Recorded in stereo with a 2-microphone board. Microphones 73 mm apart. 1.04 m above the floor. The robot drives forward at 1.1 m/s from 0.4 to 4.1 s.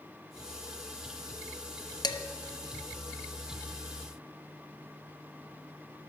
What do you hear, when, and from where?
2.0 s dishes clattering: 75° left (ahead or behind), 0.7 m; by 2.2 s 60° left (ahead or behind), 0.8 m